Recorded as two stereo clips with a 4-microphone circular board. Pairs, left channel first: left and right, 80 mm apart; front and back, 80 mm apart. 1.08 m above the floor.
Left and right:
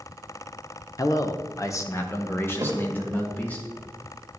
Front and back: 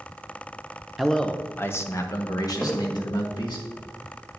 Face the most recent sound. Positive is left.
turn(degrees=-75)